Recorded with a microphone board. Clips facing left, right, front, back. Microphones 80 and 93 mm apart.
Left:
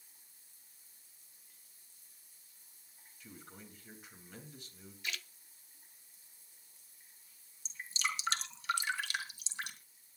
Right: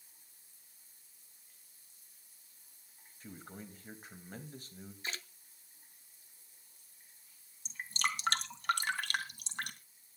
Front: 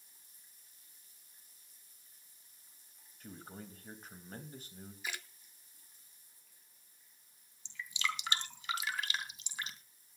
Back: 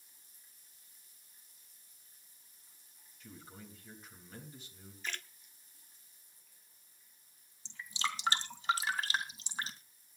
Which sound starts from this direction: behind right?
Dripping, at 7.7 s.